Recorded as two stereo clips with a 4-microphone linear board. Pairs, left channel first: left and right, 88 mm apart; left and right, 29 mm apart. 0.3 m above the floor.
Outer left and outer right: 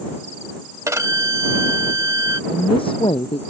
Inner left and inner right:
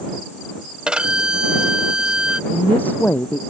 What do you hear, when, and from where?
0.9 s a violin: 35° right (ahead or behind)
2.5 s a woman speaking: 85° left